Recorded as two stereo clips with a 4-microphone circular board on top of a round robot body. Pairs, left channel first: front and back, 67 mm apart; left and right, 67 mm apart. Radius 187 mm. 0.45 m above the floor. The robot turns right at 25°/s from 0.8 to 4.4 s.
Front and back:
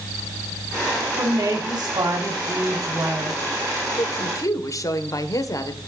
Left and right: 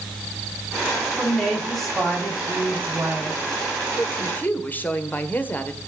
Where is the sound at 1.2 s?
165° left, 5 m; by 3.4 s 140° right, 5 m.